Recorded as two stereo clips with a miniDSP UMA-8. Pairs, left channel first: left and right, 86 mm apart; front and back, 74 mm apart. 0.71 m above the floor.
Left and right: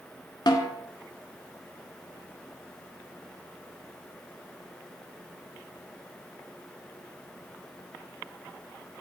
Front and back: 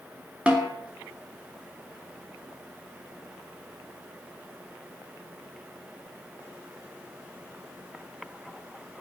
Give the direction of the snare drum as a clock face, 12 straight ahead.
8 o'clock.